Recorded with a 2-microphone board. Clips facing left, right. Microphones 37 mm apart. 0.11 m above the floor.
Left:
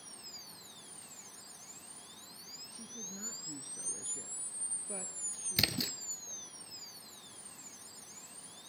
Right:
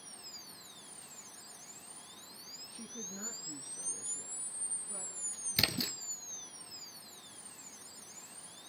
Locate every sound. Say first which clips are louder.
2.7 s a woman speaking: right 3 dB; 30° right (ahead or behind), 1.9 m; by 6.6 s 65° left (ahead or behind), 4 m
5.6 s a splash: even; centre (ahead or behind), 0.8 m